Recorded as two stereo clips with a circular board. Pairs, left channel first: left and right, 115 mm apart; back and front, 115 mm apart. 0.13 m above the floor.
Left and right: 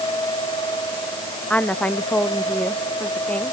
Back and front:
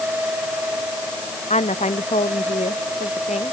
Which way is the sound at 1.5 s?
170° left.